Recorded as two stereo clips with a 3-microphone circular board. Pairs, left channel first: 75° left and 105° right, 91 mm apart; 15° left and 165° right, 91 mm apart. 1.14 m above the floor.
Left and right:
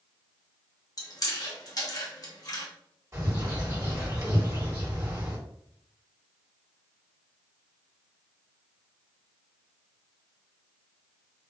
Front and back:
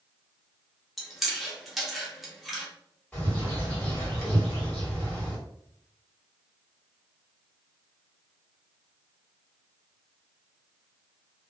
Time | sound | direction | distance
1.0 | chewing | 105° left | 0.6 m
3.1 | a bird | 55° right | 1.4 m